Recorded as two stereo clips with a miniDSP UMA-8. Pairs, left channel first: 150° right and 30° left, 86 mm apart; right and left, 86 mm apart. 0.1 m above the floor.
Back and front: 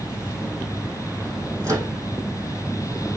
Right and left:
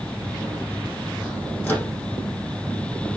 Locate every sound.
1.6 s a microwave: 15° right, 4 m